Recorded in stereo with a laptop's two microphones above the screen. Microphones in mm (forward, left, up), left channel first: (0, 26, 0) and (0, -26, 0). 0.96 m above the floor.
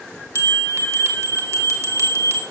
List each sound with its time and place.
0.3 s a bell: 65° right (ahead or behind), 1.8 m